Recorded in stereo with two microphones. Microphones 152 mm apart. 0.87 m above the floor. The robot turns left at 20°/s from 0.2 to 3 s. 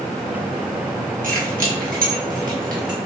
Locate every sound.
1.2 s keys jangling: 75° right (ahead or behind), 1.2 m; by 3.0 s 65° right (ahead or behind), 1.2 m